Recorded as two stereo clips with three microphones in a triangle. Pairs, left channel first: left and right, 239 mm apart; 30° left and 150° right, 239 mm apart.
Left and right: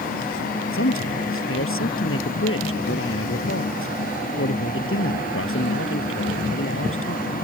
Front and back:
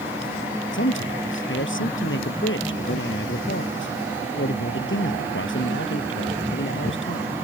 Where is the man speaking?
65° left.